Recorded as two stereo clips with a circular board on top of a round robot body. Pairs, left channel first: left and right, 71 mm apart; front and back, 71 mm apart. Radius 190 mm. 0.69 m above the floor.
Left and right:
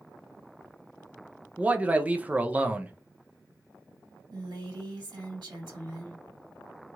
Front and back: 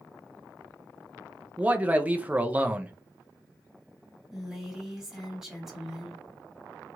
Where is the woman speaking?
95° right, 1.9 m.